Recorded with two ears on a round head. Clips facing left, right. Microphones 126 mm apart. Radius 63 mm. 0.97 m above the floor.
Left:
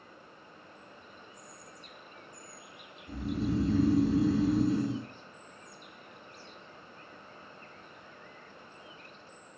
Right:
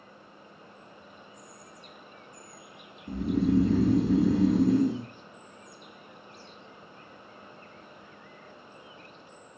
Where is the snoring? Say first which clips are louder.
Right 7 dB; 45° right (ahead or behind), 0.6 m.